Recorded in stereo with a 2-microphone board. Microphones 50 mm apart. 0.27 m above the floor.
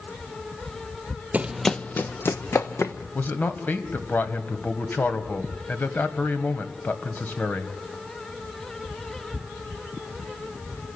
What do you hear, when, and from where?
1.3 s running footsteps: 30° right (ahead or behind), 0.5 m; by 2.9 s 60° left (ahead or behind), 1.7 m
3.1 s a man speaking: 35° left (ahead or behind), 1.9 m